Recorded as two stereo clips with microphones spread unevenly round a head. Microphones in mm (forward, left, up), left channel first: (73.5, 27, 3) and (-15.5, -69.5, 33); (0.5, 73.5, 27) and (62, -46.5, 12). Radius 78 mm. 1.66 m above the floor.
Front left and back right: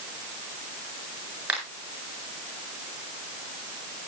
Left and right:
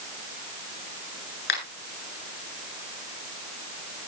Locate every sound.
1.5 s a finger snap: 145° left, 8 m